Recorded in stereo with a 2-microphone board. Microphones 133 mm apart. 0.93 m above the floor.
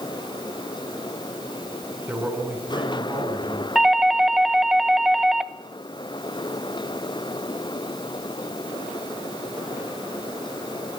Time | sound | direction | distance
2.1 | a man speaking | 10° right (ahead or behind) | 9 m
3.8 | a doorbell | 5° right (ahead or behind) | 1.1 m